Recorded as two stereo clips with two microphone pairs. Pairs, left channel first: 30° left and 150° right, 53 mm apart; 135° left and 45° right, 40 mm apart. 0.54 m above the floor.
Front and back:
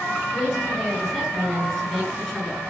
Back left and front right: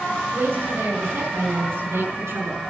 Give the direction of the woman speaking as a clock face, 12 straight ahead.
1 o'clock.